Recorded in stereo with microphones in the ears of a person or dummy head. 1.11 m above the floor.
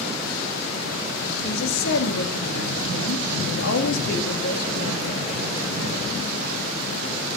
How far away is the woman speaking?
About 1.8 m.